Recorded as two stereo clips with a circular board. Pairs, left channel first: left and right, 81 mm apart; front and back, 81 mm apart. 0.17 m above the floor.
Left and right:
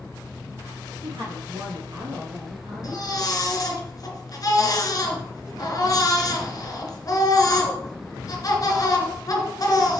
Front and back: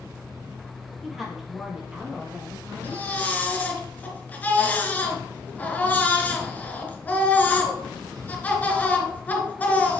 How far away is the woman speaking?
About 4.5 m.